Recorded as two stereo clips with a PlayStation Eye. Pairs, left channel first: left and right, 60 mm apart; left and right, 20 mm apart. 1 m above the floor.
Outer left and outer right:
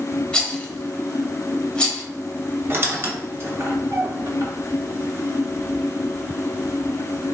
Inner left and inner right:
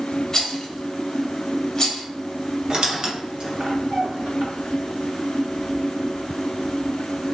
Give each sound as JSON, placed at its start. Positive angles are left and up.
{"t": 0.3, "sound": "a rattle", "side_deg": 15, "distance_m": 0.8}
{"t": 2.7, "sound": "a squeak", "side_deg": -45, "distance_m": 0.7}